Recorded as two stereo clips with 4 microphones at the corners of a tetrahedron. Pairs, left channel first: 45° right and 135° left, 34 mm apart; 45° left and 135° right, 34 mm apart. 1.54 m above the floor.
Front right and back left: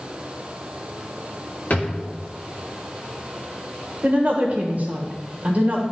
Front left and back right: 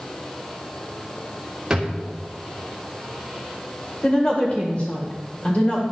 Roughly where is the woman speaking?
Left.